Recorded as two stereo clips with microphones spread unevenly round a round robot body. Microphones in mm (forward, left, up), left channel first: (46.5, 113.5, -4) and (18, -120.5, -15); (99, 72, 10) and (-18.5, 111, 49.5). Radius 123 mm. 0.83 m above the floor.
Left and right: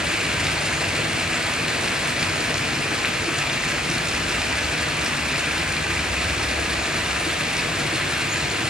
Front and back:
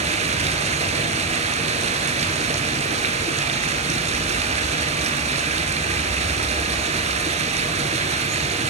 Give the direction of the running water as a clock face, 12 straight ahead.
6 o'clock.